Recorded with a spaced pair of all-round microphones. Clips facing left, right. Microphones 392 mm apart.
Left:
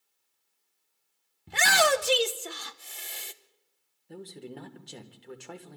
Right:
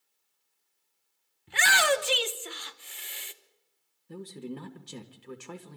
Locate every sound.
1.5 s a shout: 60° left (ahead or behind), 1.1 m
4.1 s a man speaking: 15° right (ahead or behind), 1.8 m